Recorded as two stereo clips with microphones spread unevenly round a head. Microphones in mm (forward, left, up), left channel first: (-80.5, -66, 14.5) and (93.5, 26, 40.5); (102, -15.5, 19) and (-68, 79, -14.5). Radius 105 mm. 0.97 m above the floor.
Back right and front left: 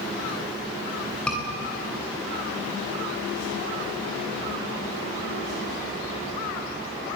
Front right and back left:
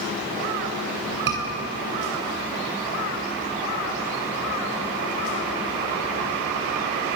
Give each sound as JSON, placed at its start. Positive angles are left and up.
{"t": 1.3, "sound": "a scream", "azimuth_deg": 120, "distance_m": 8.5}